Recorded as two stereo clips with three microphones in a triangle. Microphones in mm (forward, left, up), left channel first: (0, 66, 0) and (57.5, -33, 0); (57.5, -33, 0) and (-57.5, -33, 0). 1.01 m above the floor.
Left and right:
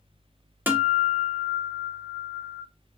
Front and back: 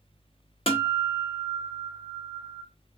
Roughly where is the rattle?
I don't hear a rattle.